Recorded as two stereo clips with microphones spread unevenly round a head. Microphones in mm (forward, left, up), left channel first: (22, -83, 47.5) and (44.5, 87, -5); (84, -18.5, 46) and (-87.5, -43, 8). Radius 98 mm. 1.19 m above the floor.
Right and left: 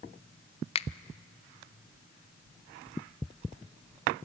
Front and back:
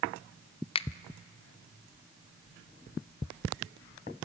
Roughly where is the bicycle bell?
I don't hear a bicycle bell.